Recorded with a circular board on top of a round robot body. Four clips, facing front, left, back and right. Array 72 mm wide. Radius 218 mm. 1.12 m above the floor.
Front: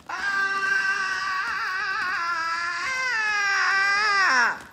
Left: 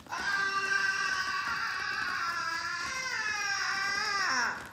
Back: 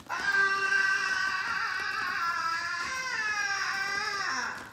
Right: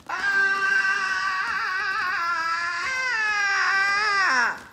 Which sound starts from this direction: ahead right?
A scream, at 0.1 s.